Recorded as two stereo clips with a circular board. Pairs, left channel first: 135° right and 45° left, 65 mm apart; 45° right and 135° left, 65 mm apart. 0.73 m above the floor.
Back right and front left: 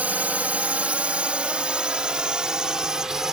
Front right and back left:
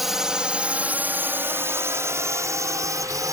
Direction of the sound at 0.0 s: 55° left.